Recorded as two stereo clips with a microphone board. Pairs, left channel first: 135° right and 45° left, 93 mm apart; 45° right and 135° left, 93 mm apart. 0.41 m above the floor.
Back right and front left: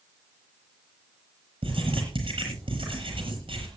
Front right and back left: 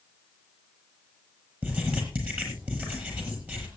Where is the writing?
65° left, 7.5 m.